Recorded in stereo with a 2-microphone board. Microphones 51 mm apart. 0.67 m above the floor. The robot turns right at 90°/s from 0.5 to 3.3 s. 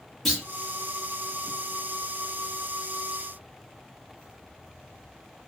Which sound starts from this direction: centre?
A clunk, at 0.2 s.